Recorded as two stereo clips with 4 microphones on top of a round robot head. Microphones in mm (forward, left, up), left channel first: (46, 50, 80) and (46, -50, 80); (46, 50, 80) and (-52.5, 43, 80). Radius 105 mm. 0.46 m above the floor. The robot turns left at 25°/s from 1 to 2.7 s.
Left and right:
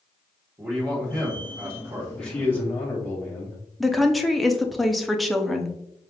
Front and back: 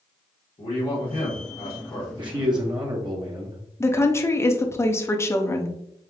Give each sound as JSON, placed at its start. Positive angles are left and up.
{"t": 0.6, "sound": "a man speaking", "azimuth_deg": -30, "distance_m": 1.6}
{"t": 2.2, "sound": "a man speaking", "azimuth_deg": 170, "distance_m": 1.0}
{"t": 3.8, "sound": "a woman speaking", "azimuth_deg": 0, "distance_m": 0.7}